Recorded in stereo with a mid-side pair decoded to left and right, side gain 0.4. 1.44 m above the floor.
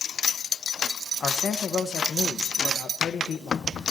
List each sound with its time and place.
1.2 s a man speaking: 60° left, 1.3 m